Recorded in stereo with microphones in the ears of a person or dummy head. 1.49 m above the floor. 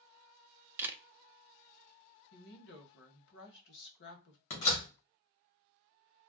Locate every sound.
0.8 s a camera shutter: 10° right (ahead or behind), 0.5 m
2.3 s a woman speaking: 70° left (ahead or behind), 1.2 m
4.5 s a door slam: 35° left (ahead or behind), 1.2 m